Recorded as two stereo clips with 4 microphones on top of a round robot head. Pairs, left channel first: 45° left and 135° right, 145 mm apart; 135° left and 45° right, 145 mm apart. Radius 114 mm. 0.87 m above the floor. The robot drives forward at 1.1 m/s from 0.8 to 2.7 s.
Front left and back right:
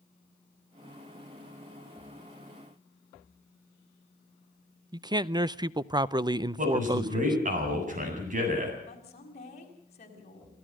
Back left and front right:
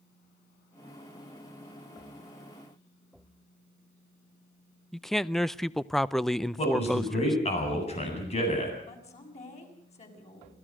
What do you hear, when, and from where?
4.9 s a man speaking: 140° right, 0.7 m
6.6 s a man speaking: 175° right, 8.5 m
8.9 s a woman speaking: 90° left, 6 m